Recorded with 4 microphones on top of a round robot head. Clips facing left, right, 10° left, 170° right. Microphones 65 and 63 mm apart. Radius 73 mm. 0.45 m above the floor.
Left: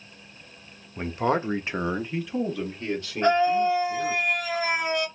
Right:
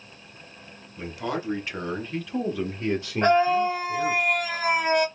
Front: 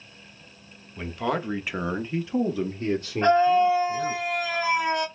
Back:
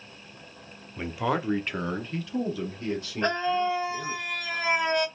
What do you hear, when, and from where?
1.0 s a man speaking: 115° left, 1.1 m; by 4.2 s 35° right, 1.8 m
3.2 s a scream: 60° right, 1.8 m